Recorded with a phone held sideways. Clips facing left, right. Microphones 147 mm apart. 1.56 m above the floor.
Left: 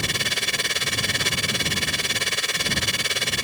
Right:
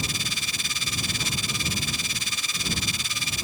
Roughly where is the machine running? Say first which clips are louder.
Left 4 dB; left.